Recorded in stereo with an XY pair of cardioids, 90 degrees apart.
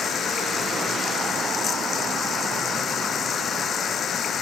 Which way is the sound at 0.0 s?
60° left.